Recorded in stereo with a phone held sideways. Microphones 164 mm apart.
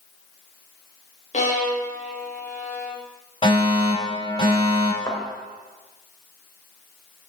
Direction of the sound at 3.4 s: 35° left (ahead or behind).